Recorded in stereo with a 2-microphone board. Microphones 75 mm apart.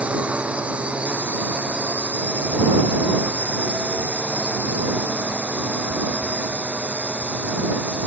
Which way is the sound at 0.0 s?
20° right (ahead or behind).